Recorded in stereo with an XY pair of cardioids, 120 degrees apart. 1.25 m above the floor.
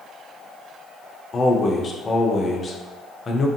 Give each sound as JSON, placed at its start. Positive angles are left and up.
{"t": 1.3, "sound": "a man speaking", "azimuth_deg": 30, "distance_m": 0.5}